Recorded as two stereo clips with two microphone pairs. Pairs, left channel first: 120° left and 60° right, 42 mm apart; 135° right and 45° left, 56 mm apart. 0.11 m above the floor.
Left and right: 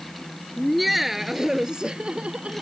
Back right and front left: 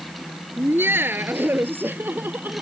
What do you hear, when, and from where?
0.6 s laughter: 35° left; by 2.6 s straight ahead